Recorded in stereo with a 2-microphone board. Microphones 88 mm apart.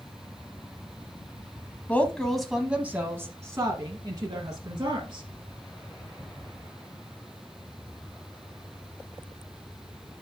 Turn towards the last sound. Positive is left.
turn(degrees=-60)  # may be behind; listen again after turning